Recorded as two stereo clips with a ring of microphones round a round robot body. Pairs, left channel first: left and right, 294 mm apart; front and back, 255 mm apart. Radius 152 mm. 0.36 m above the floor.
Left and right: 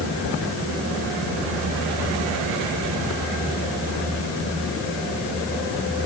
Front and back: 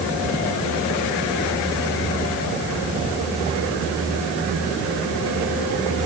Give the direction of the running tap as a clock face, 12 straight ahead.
No running tap in this recording.